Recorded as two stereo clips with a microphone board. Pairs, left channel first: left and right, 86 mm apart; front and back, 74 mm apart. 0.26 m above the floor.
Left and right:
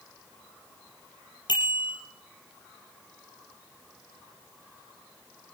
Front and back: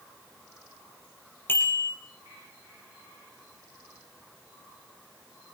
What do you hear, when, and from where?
1.5 s a bicycle bell: 60° left, 4 m